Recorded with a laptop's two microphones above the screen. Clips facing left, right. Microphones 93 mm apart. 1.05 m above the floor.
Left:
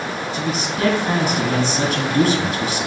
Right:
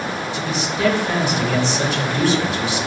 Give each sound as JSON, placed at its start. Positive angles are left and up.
{"t": 0.3, "sound": "a man speaking", "side_deg": 60, "distance_m": 1.4}